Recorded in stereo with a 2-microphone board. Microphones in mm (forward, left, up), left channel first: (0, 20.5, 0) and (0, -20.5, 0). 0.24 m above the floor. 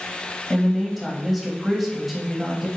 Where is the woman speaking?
Centre (ahead or behind), 0.9 m.